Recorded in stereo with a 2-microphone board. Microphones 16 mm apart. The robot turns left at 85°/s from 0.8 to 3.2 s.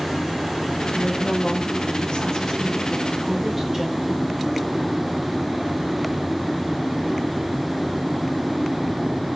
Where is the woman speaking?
170° left, 5 m; by 4.3 s 20° right, 5 m.